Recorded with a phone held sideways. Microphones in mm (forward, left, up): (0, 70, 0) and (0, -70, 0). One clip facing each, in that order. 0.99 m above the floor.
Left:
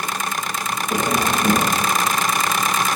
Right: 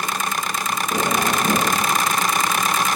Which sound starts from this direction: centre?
Tapping, at 0.9 s.